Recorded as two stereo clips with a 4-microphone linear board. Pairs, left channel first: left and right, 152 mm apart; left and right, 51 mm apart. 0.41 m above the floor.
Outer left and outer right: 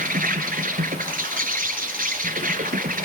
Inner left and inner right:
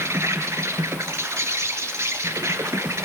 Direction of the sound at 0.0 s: 65° right (ahead or behind).